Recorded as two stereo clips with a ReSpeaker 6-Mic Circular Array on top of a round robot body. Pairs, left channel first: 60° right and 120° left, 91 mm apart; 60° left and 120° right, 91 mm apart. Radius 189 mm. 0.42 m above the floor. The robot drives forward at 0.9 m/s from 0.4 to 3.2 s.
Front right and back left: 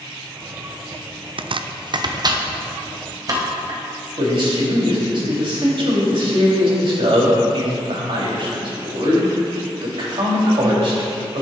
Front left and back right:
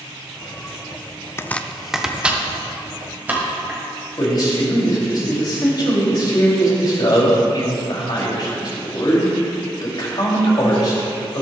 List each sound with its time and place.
1.4 s chopping: 120° left, 0.5 m; by 3.8 s 170° left, 1.9 m
4.2 s a man speaking: 100° left, 3.5 m